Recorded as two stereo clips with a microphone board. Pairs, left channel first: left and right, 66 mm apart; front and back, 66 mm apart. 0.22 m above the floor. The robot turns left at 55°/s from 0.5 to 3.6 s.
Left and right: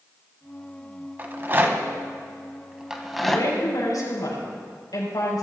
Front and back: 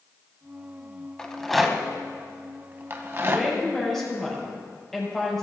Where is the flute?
No flute in this recording.